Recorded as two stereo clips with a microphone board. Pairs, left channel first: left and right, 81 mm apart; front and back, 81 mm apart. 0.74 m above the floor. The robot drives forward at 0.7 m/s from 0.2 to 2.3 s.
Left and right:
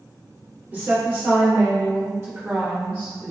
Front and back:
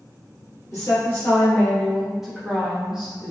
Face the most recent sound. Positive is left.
turn(degrees=-105)